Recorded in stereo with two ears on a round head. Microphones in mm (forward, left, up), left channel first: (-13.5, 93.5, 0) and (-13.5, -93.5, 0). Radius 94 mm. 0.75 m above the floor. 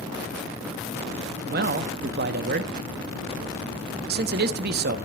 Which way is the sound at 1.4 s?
50° right (ahead or behind).